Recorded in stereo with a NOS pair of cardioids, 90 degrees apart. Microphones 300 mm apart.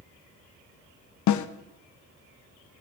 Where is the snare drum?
70° left, 0.7 m.